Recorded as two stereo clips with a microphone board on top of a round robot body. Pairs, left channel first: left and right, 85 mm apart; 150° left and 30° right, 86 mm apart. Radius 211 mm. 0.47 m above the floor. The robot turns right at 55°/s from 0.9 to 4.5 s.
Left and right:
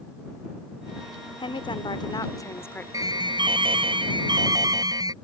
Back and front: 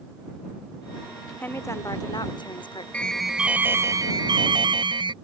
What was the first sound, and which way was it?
A woman speaking, 80° left.